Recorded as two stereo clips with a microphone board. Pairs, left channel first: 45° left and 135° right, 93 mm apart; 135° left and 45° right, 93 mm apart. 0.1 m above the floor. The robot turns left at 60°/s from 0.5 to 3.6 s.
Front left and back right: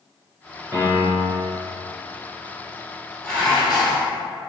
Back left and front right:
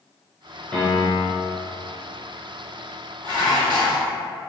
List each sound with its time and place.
0.7 s a piano: 165° right, 1.3 m; by 1.5 s 150° left, 1.3 m
3.2 s dishes clattering: 35° right, 1.3 m; by 4.1 s 55° right, 1.3 m